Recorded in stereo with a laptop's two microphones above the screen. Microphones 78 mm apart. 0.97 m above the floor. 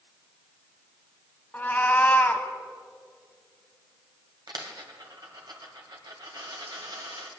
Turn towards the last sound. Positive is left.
turn(degrees=-65)  # may be behind; listen again after turning